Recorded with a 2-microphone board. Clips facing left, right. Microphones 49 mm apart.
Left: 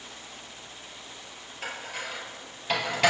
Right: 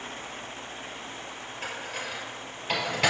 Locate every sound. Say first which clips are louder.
1.6 s dishes clattering: even; centre (ahead or behind), 1.8 m